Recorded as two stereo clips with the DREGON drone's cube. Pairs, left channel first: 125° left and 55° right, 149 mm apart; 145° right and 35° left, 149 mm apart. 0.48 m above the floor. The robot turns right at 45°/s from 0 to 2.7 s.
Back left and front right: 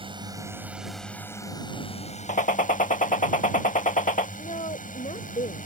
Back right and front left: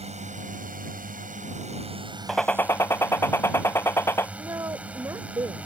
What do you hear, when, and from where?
0.0 s a drone: 5° right; by 5.7 s 115° left
2.3 s a gunshot: 125° left; by 4.3 s 145° left
4.4 s a woman speaking: 100° left